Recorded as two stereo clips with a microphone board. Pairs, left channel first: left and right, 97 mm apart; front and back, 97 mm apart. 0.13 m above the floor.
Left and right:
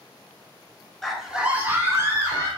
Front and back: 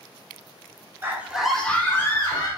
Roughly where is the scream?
Behind.